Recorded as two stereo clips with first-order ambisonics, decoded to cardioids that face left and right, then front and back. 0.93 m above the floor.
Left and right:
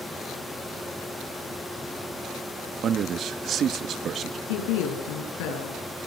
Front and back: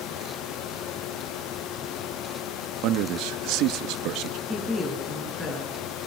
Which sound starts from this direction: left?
A woman speaking, at 4.5 s.